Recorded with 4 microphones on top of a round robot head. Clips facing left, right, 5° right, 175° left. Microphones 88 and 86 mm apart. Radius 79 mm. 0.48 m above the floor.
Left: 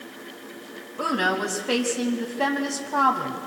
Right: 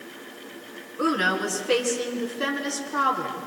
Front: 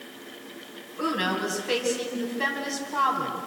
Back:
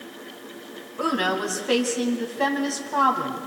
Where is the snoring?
No snoring in this recording.